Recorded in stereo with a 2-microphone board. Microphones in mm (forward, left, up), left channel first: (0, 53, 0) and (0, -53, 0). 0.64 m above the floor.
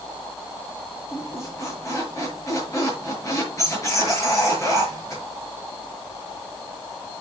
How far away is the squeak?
About 5.5 m.